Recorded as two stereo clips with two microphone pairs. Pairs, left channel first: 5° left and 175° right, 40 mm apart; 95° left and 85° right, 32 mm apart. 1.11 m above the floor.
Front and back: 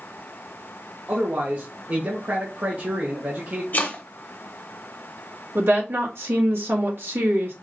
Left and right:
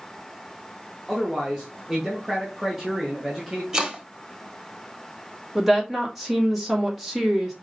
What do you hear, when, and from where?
1.1 s a man speaking: 155° right, 1.0 m
3.7 s chopping: 20° right, 1.4 m
5.5 s a woman speaking: 165° right, 1.6 m